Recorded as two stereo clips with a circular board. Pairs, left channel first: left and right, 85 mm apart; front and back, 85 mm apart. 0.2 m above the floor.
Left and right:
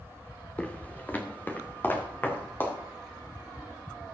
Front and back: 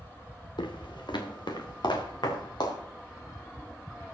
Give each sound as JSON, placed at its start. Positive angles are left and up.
{"t": 0.6, "sound": "footsteps", "azimuth_deg": 15, "distance_m": 1.6}